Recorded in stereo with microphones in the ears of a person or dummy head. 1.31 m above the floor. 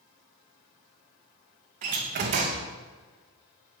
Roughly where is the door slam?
Right.